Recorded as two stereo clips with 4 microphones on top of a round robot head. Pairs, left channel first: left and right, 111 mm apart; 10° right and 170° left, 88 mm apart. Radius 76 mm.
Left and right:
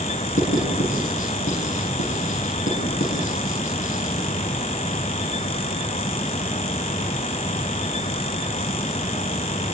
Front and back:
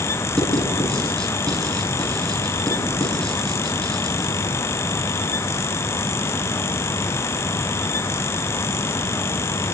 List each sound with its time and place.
0.4 s writing: 75° left, 7.5 m